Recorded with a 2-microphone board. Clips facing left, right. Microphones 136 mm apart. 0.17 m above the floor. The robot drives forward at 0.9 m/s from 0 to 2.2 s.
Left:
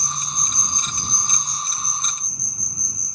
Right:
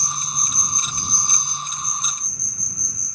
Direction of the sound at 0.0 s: 55° left (ahead or behind).